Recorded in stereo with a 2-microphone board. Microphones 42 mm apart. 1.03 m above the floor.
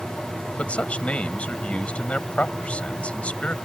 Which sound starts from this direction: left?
A man speaking, at 0.6 s.